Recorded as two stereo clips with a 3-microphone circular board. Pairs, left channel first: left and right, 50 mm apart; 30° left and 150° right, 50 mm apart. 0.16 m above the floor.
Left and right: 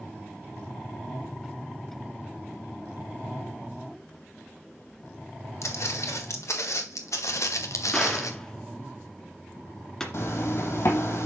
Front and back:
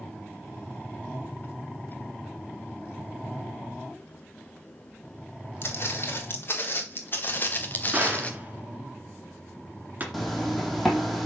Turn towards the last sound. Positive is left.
turn(degrees=120)